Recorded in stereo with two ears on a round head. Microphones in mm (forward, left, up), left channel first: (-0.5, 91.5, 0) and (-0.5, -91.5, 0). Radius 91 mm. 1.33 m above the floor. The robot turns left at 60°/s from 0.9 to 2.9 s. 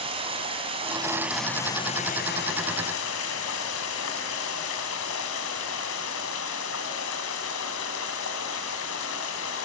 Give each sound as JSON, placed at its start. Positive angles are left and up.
{"t": 0.0, "sound": "running water", "azimuth_deg": -150, "distance_m": 3.5}